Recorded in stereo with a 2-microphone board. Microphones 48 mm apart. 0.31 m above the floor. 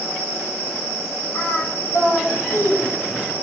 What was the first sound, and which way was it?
Singing, 50° left (ahead or behind).